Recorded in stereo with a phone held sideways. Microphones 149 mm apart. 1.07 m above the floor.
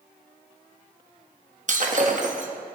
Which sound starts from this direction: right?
Breaking glass, at 1.7 s.